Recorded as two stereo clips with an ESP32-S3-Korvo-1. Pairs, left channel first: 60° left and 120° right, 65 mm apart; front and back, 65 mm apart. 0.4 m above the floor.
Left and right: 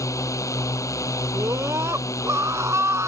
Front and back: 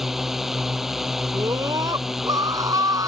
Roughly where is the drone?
Left.